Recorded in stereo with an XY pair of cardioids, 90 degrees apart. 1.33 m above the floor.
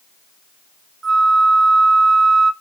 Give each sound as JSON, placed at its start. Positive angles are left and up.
{"t": 1.0, "sound": "a flute", "azimuth_deg": -50, "distance_m": 1.6}